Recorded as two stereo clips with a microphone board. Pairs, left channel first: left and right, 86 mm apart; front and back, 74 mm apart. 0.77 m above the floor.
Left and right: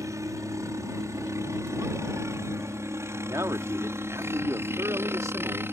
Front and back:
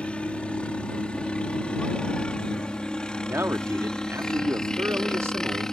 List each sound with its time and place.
0.0 s a helicopter: 70° right; by 5.7 s 75° right
3.2 s a man speaking: 135° right